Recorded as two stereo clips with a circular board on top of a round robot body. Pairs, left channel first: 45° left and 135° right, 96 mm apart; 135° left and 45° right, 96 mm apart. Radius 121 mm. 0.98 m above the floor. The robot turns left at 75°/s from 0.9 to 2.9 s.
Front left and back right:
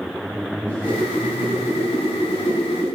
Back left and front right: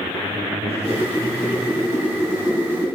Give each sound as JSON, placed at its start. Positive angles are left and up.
{"t": 0.7, "sound": "a whoosh", "azimuth_deg": 115, "distance_m": 3.5}